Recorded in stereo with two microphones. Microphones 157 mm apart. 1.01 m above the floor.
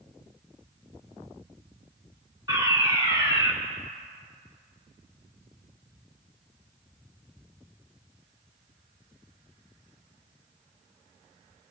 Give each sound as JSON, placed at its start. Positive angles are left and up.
{"t": 2.5, "sound": "a fire alarm", "side_deg": -25, "distance_m": 4.5}